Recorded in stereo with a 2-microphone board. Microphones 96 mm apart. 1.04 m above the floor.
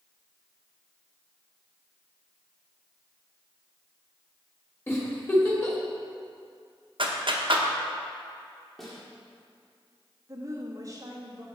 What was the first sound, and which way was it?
A giggle, 25° left (ahead or behind).